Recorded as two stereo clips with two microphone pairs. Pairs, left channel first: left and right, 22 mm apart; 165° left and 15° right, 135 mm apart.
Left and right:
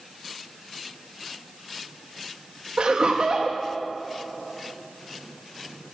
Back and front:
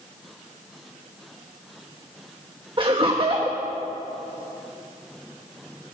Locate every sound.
2.8 s laughter: 60° right, 1.1 m